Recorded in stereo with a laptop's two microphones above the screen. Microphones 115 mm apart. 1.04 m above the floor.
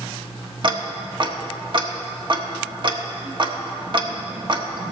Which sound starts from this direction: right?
Ticking, at 0.6 s.